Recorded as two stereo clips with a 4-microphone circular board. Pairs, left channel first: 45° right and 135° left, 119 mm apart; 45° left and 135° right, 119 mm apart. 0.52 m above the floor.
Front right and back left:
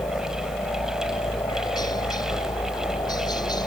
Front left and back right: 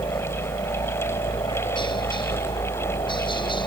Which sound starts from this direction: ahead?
A helicopter, at 0.0 s.